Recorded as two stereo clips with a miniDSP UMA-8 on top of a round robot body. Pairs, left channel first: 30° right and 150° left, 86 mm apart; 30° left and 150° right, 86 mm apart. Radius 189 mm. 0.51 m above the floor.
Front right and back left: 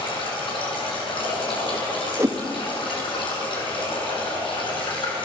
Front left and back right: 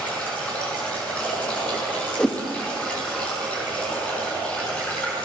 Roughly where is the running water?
Ahead right.